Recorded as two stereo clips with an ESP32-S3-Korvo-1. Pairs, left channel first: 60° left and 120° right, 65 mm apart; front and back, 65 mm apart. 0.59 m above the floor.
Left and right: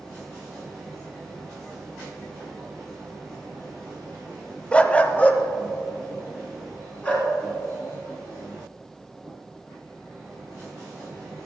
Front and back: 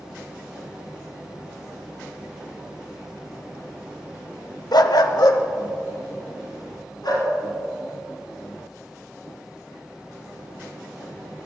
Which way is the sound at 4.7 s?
10° right.